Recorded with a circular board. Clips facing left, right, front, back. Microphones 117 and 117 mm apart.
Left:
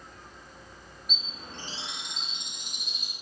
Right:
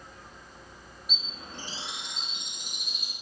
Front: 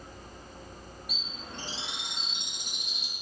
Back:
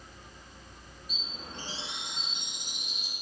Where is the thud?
No thud in this recording.